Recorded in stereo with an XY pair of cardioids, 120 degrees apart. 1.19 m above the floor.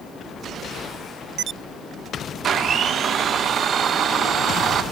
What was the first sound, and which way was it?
A blender, 50° right.